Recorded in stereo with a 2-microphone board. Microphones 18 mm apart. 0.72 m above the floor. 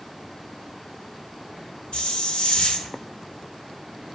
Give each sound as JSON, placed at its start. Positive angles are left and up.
{"t": 1.9, "sound": "a hiss", "side_deg": 80, "distance_m": 0.7}